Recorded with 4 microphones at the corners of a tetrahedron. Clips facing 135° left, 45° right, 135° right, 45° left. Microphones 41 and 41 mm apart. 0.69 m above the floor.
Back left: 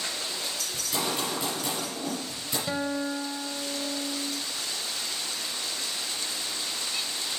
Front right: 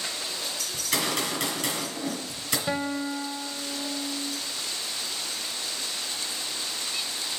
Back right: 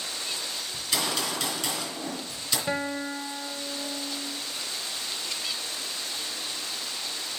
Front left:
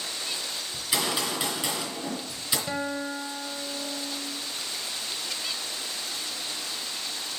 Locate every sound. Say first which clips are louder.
0.7 s a gunshot: front right 3 dB, front left 1 dB; 30° right, 3 m
2.7 s a guitar: even, back right 3 dB; 90° right, 0.5 m